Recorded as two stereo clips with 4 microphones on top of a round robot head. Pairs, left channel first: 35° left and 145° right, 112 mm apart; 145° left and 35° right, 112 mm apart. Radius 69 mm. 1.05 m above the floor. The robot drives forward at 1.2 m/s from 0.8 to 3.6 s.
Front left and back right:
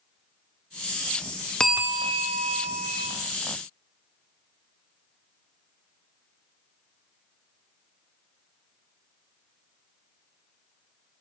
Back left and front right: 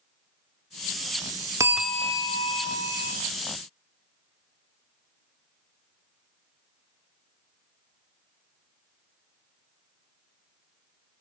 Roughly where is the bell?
Ahead right.